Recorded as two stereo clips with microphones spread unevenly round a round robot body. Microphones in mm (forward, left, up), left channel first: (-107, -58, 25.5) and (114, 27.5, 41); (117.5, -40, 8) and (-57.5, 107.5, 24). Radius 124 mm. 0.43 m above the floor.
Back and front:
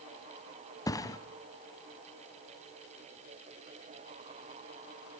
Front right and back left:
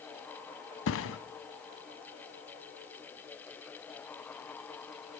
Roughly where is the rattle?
I don't hear a rattle.